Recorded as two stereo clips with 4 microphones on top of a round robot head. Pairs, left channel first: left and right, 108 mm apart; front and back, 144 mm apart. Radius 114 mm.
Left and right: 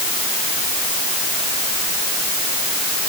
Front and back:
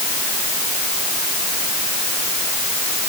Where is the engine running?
I don't hear an engine running.